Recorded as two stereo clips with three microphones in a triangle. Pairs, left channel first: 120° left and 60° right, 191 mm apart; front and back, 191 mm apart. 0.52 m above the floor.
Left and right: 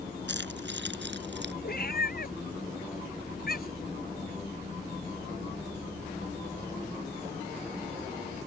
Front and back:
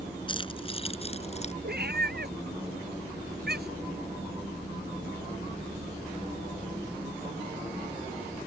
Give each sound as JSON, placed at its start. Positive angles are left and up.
{"t": 0.3, "sound": "keys jangling", "azimuth_deg": -60}
{"t": 1.6, "sound": "a cat meowing", "azimuth_deg": 155}